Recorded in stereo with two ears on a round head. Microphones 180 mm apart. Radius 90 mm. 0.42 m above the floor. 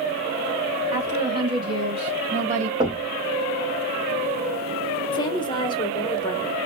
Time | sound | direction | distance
0.9 | a woman speaking | 15° right (ahead or behind) | 3 m
2.8 | knocking | 20° right (ahead or behind) | 1.7 m
5.1 | a woman speaking | 25° left (ahead or behind) | 1.1 m